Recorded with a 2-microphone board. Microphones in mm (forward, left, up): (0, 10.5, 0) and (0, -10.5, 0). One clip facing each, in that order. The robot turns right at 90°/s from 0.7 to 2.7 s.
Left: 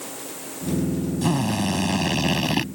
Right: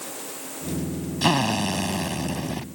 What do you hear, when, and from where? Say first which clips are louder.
1.2 s a drill: right 4 dB; 50° right; by 2.6 s 80° left